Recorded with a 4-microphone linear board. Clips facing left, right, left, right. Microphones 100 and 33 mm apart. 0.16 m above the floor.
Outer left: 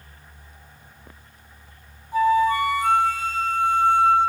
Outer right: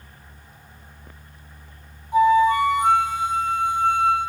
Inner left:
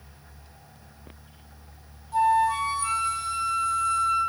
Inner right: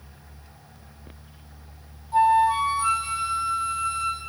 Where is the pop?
No pop in this recording.